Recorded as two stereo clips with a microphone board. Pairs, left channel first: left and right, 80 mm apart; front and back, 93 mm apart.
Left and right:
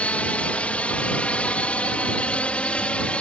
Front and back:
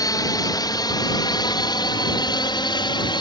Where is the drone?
20° left; by 3.2 s 15° left.